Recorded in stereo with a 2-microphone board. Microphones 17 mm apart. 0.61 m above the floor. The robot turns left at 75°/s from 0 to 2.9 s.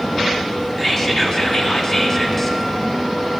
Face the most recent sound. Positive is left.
turn(degrees=0)